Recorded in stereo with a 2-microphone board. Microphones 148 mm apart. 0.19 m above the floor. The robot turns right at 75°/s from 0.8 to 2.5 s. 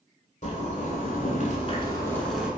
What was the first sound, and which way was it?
A zipper, 65° left.